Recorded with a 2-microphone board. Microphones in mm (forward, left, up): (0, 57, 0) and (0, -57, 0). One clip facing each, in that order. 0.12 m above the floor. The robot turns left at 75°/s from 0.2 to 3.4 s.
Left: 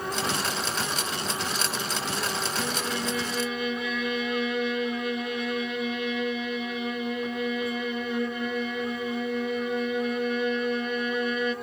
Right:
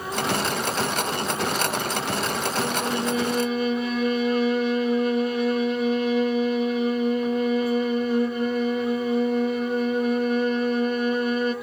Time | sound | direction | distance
2.6 | a violin | 25° right | 0.6 m